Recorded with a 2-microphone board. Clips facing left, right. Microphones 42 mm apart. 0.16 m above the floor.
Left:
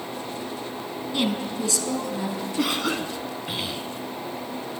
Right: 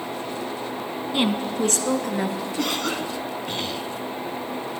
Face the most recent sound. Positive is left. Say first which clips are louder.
# left 2 dB
turn(degrees=10)  # may be behind; listen again after turning